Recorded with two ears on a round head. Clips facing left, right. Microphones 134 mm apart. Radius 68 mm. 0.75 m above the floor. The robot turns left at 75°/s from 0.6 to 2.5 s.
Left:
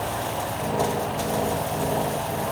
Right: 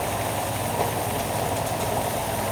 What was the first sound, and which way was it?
Only background noise.